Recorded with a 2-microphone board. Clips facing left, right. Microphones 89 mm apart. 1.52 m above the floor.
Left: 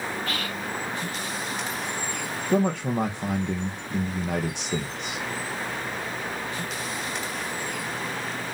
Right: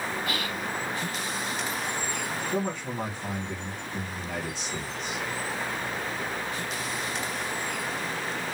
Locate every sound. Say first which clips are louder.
0.3 s whispering: even; 10° right (ahead or behind), 1.7 m
2.5 s a man speaking: left 10 dB; 65° left (ahead or behind), 0.7 m